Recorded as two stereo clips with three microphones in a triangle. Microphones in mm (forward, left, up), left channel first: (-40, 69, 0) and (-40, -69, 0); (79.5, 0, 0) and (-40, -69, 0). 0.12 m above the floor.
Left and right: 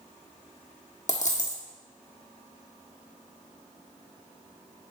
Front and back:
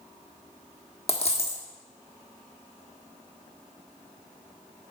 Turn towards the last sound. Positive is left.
turn(degrees=70)